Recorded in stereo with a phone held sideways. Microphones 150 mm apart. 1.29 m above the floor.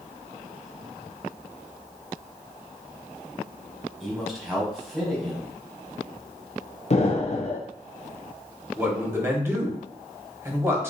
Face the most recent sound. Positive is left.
turn(degrees=-15)  # may be behind; listen again after turning